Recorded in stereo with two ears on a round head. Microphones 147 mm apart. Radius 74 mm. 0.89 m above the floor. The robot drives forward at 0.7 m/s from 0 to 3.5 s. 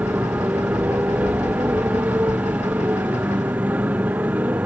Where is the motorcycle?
10° right (ahead or behind).